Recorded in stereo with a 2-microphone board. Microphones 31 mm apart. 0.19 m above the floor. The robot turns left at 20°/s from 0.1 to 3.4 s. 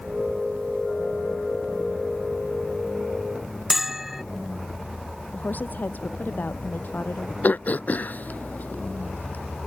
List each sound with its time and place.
3.7 s a bell: 10° right (ahead or behind)
5.3 s a woman speaking: 80° left
7.4 s throat clearing: 65° left (ahead or behind)